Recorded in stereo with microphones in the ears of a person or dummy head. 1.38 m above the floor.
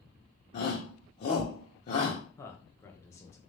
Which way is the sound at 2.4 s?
15° left (ahead or behind).